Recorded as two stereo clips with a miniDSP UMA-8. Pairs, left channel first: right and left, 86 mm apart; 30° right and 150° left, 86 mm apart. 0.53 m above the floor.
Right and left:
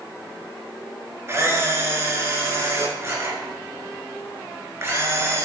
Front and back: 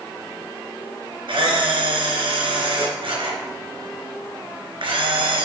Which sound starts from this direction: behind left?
A camera shutter, at 1.3 s.